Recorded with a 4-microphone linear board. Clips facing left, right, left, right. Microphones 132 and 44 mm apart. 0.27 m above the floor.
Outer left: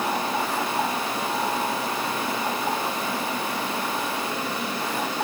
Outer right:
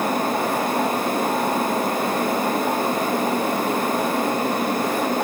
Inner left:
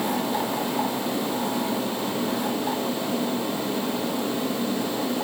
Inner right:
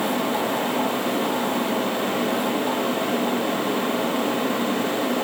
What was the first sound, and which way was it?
Only background noise.